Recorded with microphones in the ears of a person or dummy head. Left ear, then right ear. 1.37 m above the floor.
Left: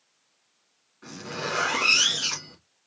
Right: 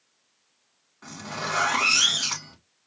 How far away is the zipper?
About 2 m.